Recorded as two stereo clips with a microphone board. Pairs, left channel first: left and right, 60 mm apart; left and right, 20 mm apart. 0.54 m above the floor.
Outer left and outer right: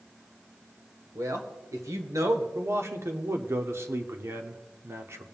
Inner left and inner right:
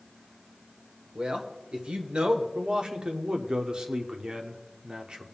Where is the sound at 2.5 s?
45° right (ahead or behind), 1.0 m.